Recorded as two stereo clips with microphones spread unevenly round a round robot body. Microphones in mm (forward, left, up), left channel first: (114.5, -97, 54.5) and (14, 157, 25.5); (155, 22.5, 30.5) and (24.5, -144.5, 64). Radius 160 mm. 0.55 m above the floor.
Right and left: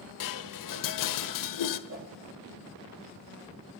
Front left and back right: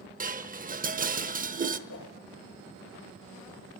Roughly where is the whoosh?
Left.